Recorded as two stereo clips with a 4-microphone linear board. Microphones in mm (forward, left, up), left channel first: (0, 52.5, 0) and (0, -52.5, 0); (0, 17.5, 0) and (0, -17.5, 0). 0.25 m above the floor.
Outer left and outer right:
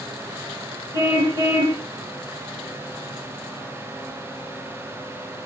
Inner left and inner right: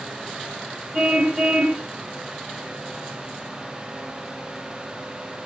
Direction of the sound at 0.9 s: 45° right (ahead or behind).